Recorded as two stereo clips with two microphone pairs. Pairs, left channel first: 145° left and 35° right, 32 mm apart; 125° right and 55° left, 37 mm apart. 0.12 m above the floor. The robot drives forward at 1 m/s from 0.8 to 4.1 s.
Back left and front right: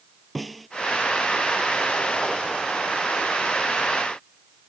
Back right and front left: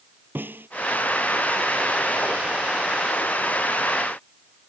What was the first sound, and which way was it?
A snare drum, 55° left.